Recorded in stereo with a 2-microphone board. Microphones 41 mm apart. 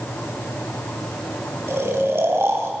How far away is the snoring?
About 2.0 m.